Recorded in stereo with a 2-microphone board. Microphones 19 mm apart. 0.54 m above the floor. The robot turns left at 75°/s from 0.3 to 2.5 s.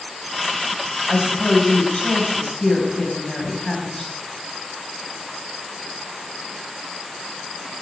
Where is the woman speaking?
145° left, 4.5 m; by 4.1 s 40° left, 4.5 m.